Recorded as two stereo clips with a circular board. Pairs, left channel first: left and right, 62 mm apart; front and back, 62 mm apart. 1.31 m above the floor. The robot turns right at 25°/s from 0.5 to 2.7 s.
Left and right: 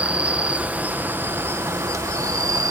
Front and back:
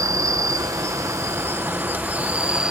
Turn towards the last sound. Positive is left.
turn(degrees=-105)